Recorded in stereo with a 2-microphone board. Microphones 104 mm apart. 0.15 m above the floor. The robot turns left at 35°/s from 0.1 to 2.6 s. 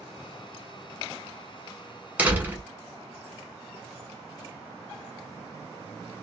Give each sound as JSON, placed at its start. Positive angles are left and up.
{"t": 2.2, "sound": "a door slam", "side_deg": -15, "distance_m": 0.9}